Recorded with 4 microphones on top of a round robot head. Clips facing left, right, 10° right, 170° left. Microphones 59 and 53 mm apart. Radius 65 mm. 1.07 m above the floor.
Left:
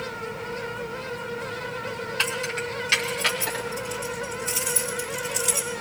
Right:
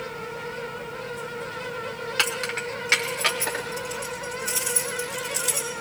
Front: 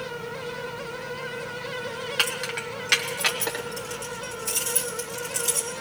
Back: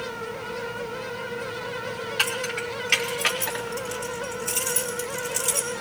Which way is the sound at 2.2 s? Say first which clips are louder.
Right 1 dB, back 1 dB; 65° right.